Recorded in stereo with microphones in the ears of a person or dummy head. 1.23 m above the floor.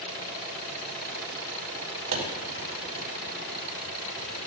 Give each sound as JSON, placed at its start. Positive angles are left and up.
{"t": 2.1, "sound": "a pop", "side_deg": -85, "distance_m": 4.0}